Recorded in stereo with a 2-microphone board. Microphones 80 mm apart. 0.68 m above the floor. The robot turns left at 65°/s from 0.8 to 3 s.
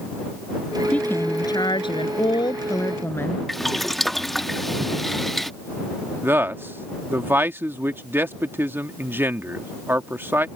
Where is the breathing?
No breathing in this recording.